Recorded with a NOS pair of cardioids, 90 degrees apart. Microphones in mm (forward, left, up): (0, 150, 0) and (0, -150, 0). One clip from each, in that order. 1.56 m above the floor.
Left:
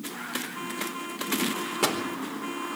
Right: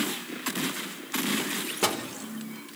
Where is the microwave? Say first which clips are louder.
Left 1 dB; 5° left, 4 m.